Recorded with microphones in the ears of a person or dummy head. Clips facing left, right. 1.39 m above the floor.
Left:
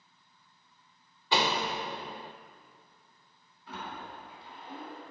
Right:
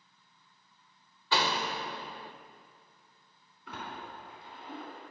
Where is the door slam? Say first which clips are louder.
Left 2 dB; 20° left (ahead or behind), 0.6 m.